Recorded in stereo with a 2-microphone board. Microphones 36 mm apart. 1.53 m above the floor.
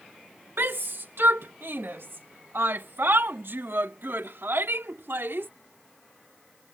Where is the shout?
75° right (ahead or behind); by 5.5 s 85° right.